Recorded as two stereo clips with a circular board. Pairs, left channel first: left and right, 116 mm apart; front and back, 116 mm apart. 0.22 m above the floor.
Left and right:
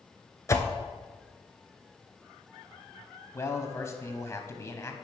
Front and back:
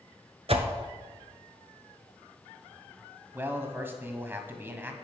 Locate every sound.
0.5 s a whoosh: 155° left, 0.8 m
3.3 s a man speaking: 125° left, 1.1 m